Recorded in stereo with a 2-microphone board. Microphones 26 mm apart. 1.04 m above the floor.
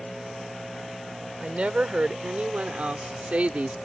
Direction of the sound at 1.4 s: 40° right (ahead or behind).